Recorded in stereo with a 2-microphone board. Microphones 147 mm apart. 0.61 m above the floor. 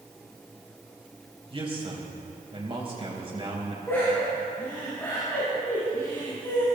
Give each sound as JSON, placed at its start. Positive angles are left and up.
{"t": 1.5, "sound": "a man speaking", "side_deg": -40, "distance_m": 4.0}
{"t": 3.9, "sound": "laughter", "side_deg": 15, "distance_m": 4.5}